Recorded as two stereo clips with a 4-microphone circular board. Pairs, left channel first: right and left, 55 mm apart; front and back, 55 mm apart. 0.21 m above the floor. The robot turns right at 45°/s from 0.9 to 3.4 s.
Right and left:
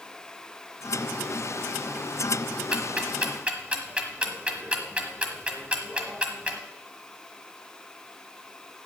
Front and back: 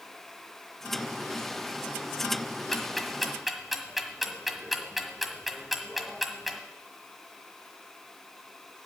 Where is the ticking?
65° left, 1.4 m; by 6.6 s 100° left, 1.4 m.